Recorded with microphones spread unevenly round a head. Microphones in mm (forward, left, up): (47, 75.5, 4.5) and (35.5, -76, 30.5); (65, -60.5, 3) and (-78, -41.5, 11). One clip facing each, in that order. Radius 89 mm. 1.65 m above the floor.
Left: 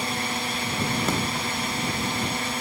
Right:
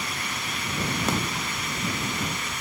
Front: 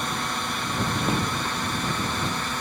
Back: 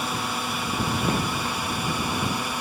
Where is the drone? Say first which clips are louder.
Left 5 dB, back 1 dB; 90° left; by 2.6 s 95° left.